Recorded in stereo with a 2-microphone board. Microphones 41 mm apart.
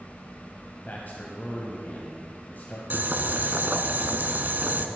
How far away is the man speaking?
About 2 m.